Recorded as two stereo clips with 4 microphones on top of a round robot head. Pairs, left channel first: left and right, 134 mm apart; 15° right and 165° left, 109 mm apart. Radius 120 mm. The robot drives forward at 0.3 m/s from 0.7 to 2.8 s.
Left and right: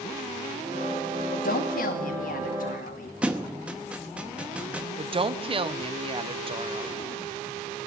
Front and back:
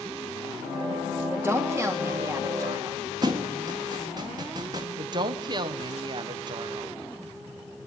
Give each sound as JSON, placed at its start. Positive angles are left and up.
{"t": 1.3, "sound": "a woman speaking", "azimuth_deg": 90, "distance_m": 2.5}
{"t": 3.2, "sound": "a thud", "azimuth_deg": -165, "distance_m": 0.9}
{"t": 5.0, "sound": "a woman speaking", "azimuth_deg": -140, "distance_m": 1.2}